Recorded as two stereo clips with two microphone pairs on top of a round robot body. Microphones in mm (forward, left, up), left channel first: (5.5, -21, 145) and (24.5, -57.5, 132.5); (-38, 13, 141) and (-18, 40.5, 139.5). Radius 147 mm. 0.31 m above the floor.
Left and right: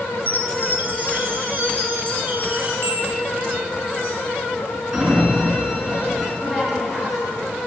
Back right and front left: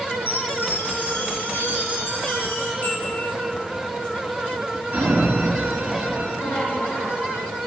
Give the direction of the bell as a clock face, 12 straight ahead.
3 o'clock.